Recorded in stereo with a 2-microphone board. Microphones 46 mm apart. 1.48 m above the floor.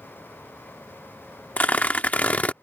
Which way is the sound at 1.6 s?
35° left (ahead or behind).